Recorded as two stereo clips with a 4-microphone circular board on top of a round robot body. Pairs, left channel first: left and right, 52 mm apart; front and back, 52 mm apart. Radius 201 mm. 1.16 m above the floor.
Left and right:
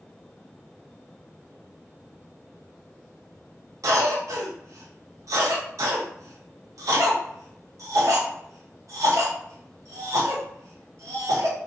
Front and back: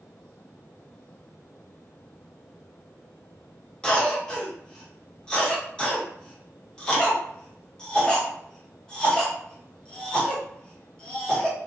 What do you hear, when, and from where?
3.8 s a cough: 75° right, 0.8 m